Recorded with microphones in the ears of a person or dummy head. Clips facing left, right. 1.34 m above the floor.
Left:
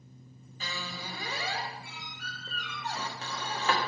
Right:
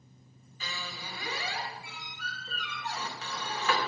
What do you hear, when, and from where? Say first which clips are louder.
0.6 s a squeak: left 2 dB; 30° left (ahead or behind), 1.4 m